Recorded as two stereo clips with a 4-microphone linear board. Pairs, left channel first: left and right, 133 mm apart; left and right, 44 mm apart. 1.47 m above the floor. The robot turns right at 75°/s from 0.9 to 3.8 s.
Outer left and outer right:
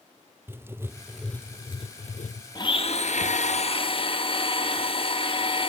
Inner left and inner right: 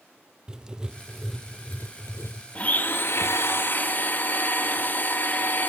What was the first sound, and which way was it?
Writing, 20° right.